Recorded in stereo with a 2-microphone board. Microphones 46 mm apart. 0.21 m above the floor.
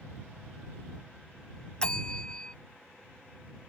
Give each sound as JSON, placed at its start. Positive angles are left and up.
{"t": 1.8, "sound": "a bell", "side_deg": 20}